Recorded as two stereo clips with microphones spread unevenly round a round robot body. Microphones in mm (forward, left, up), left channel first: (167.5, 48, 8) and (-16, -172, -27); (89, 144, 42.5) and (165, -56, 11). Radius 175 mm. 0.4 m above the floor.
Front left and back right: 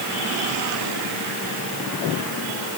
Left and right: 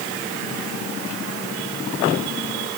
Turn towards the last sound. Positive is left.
No sound to turn to.